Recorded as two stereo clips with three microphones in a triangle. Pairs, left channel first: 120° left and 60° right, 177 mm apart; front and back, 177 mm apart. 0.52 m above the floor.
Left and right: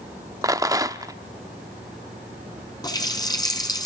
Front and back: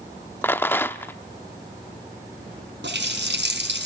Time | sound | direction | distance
0.4 | a rattle | 50° right | 0.7 m
2.8 | a running tap | 170° right | 3 m